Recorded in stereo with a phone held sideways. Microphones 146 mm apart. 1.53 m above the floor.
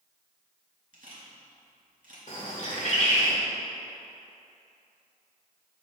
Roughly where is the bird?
Left.